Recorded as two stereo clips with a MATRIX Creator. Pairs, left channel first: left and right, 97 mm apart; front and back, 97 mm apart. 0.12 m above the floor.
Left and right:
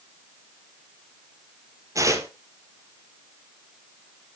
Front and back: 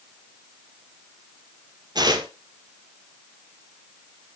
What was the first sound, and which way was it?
Tearing paper, 145° right.